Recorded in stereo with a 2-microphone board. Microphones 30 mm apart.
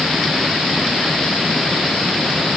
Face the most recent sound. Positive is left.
No sound to turn to.